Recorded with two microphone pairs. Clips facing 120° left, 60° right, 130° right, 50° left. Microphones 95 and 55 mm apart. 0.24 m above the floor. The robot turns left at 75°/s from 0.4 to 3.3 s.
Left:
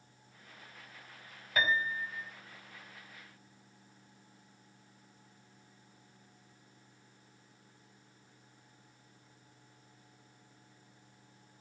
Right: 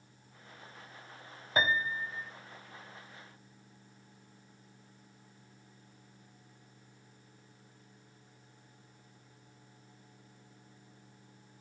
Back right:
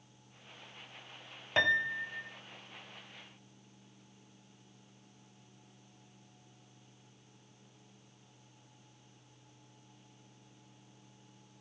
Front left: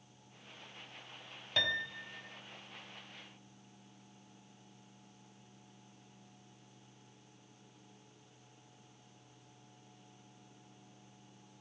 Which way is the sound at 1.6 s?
105° right.